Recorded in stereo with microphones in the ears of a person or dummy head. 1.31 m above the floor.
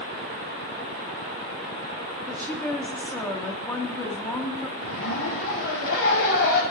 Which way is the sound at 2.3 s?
15° left (ahead or behind).